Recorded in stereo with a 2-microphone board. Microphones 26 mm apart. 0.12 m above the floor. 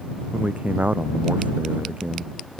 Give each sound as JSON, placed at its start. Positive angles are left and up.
{"t": 0.3, "sound": "a man speaking", "side_deg": -80}